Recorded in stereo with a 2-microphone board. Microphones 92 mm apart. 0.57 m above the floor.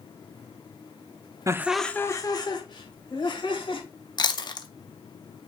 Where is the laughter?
35° right (ahead or behind), 0.7 m; by 3.8 s 65° left (ahead or behind), 3 m.